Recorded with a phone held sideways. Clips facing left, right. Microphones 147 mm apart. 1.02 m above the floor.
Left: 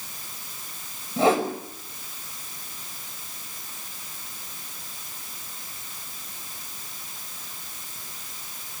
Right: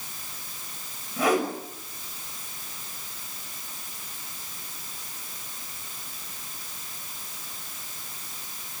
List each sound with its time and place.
1.2 s a whoosh: 30° left (ahead or behind), 5.5 m